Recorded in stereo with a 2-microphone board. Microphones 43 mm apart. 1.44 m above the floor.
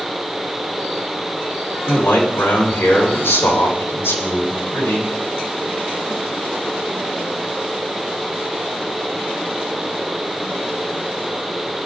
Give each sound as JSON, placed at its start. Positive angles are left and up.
{"t": 1.9, "sound": "a man speaking", "side_deg": 70, "distance_m": 4.5}